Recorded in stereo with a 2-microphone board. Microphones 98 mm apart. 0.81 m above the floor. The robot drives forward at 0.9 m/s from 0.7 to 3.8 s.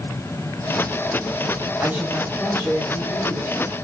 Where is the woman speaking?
20° right (ahead or behind), 3.5 m; by 3.7 s 15° right (ahead or behind), 5 m.